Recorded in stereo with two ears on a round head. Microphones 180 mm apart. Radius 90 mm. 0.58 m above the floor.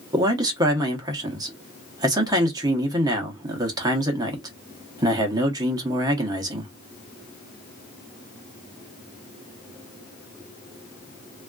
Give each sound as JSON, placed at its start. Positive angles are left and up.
{"t": 0.1, "sound": "a man speaking", "side_deg": -20, "distance_m": 0.8}